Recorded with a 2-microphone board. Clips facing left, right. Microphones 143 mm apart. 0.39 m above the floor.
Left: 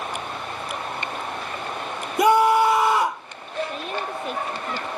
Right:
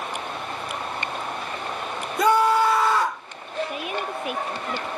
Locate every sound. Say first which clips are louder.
2.2 s a scream: left 2 dB; 15° left (ahead or behind)
3.7 s a woman speaking: even; 10° right (ahead or behind)